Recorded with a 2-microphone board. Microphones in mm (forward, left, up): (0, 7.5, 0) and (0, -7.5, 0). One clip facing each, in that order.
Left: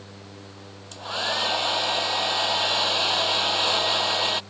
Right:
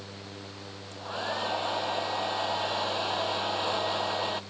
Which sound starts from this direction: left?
A hair dryer, at 0.9 s.